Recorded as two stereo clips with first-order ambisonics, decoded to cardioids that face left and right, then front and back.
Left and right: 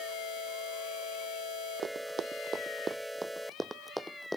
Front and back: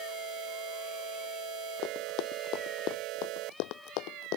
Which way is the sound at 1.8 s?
35° right.